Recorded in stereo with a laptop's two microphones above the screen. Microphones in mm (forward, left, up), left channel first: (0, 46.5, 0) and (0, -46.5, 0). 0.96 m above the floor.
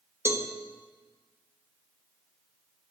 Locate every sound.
0.2 s a cowbell: 30° right (ahead or behind), 1.0 m